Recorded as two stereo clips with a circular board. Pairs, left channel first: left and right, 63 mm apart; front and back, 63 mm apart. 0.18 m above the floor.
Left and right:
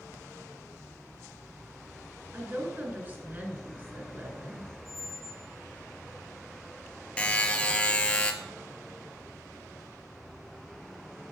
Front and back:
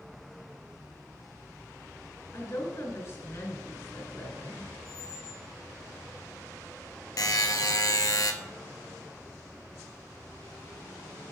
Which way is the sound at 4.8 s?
135° right.